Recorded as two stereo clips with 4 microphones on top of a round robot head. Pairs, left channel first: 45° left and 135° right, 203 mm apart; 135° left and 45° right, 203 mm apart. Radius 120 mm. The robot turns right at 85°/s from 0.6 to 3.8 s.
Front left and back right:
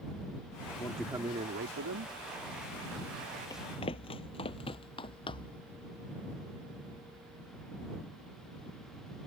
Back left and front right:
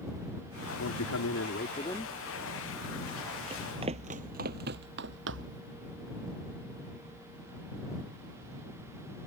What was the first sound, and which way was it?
A man speaking, 115° left.